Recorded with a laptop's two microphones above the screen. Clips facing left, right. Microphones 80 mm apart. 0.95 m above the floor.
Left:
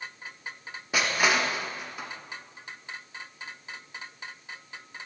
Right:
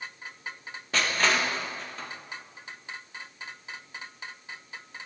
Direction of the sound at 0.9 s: 15° left (ahead or behind).